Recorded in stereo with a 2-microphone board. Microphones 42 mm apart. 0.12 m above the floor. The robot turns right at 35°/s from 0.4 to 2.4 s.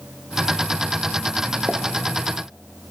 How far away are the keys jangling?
No keys jangling in this recording.